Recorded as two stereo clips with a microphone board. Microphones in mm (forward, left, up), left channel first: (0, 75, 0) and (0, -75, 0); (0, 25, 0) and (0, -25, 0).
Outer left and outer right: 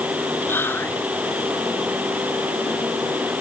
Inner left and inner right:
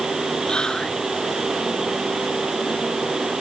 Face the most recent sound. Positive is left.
turn(degrees=15)  # may be behind; listen again after turning